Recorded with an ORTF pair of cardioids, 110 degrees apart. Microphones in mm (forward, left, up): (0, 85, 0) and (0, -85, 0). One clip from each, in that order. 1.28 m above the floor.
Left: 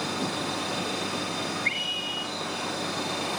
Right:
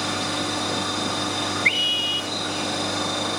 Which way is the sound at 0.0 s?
40° right.